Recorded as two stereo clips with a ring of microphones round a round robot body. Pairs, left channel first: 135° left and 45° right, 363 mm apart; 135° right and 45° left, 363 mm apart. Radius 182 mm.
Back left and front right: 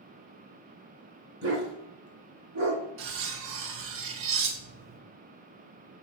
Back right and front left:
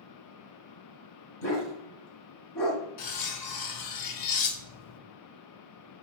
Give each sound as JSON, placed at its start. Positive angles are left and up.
{"t": 1.4, "sound": "a dog barking", "azimuth_deg": -105, "distance_m": 2.0}
{"t": 3.0, "sound": "cutlery clinking", "azimuth_deg": -100, "distance_m": 0.8}